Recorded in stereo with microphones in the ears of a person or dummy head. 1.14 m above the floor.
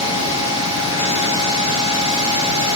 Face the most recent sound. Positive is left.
turn(degrees=-5)  # may be behind; listen again after turning